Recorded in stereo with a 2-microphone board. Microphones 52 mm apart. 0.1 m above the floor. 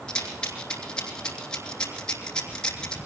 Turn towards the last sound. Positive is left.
turn(degrees=15)  # may be behind; listen again after turning